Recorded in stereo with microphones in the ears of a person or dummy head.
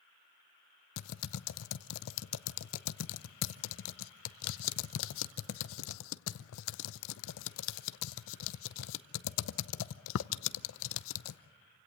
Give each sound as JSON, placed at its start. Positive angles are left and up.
{"t": 1.0, "sound": "typing on a keyboard", "side_deg": 75, "distance_m": 0.6}